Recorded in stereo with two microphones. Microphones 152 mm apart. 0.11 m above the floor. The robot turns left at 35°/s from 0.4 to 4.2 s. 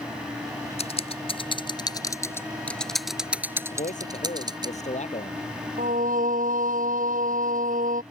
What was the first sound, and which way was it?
Typing on a keyboard, 45° left (ahead or behind).